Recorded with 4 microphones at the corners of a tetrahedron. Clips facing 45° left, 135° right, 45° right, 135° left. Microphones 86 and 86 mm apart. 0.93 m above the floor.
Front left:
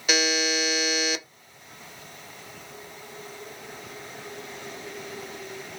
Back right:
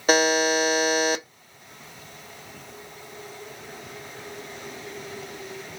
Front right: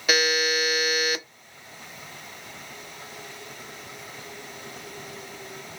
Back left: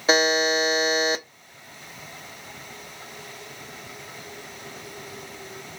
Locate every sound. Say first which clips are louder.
0.1 s a buzzer: back right 6 dB, back left 4 dB; 170° right, 0.6 m